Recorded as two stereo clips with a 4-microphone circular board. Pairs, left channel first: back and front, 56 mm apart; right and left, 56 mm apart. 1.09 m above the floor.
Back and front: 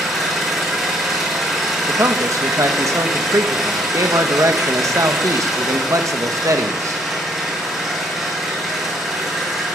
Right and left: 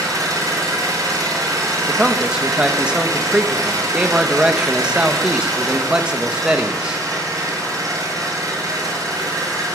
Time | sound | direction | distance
0.0 | an engine running | 85° left | 8 m
1.9 | a man speaking | 20° left | 1.5 m